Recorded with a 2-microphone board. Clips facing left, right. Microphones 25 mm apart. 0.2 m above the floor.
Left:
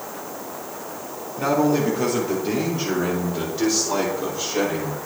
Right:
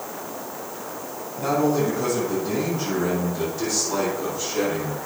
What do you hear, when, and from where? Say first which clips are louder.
1.4 s a man speaking: left 2 dB; 65° left (ahead or behind), 4 m; by 5.0 s 40° left (ahead or behind), 5 m